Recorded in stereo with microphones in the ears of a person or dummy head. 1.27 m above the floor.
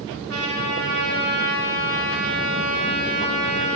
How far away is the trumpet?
About 3.5 m.